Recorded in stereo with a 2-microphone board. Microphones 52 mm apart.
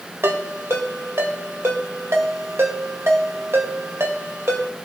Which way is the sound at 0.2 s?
60° right (ahead or behind).